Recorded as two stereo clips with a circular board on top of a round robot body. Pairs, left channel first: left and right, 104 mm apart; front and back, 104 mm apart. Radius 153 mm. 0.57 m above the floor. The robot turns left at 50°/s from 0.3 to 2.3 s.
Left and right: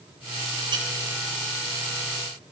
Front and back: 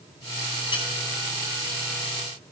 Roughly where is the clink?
Ahead right.